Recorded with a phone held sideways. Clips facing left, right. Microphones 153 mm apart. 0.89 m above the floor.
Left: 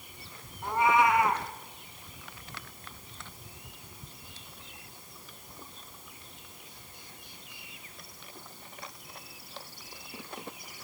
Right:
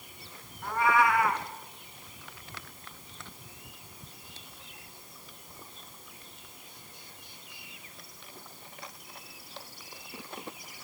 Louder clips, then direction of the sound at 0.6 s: Left 1 dB; 20° left (ahead or behind).